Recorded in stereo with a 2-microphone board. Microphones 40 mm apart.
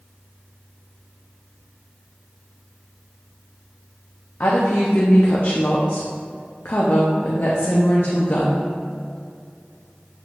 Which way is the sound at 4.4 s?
60° left (ahead or behind).